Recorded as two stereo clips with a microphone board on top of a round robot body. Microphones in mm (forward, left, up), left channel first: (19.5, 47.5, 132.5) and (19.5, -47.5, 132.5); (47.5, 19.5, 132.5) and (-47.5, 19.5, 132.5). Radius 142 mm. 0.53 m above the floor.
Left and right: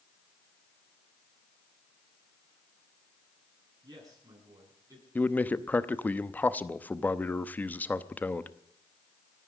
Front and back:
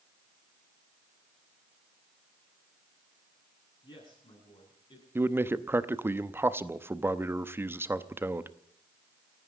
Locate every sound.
3.8 s a man speaking: 45° right, 9 m; by 5.0 s 40° right, 8 m
5.2 s a man speaking: 140° left, 1.0 m